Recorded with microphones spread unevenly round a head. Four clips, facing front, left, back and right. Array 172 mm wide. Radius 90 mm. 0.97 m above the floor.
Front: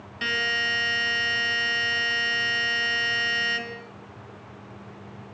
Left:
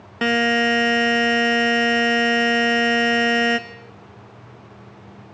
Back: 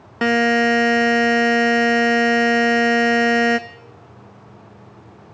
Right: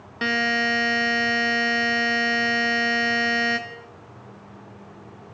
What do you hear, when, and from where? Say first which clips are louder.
0.2 s a buzzer: left 5 dB, back 13 dB; 155° left, 1.2 m